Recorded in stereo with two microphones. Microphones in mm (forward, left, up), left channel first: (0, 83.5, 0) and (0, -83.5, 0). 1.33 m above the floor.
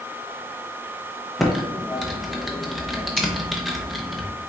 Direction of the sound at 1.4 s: Centre (ahead or behind).